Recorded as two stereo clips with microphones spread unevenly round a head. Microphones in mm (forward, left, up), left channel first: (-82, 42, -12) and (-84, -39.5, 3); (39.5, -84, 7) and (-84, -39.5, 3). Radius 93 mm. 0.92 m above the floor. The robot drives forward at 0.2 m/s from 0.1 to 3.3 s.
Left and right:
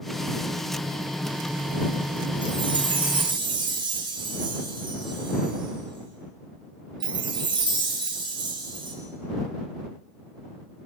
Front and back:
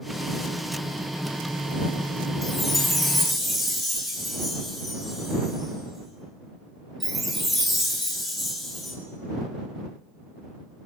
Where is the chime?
110° right, 6.5 m.